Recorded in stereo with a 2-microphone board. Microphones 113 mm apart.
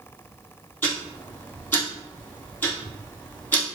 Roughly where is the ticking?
Centre.